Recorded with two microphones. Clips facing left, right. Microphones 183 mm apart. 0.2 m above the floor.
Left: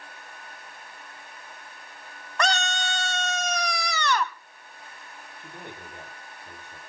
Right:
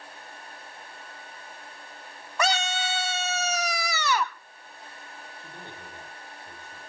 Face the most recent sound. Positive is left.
turn(degrees=15)  # may be behind; listen again after turning